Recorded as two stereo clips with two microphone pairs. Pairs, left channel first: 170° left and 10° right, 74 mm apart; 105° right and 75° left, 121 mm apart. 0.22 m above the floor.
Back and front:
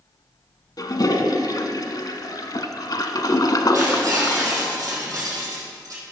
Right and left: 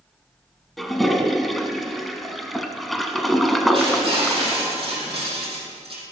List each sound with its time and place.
0.8 s a toilet flushing: 165° left, 0.8 m
3.7 s breaking glass: 30° left, 3.5 m